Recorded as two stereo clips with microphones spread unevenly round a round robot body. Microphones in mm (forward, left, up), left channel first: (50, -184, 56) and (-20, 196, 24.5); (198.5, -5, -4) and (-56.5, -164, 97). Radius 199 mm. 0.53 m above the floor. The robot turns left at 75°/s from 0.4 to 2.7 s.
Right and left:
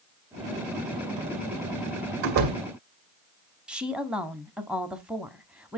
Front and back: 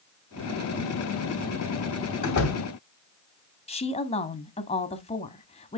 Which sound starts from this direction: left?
A door slam, at 2.2 s.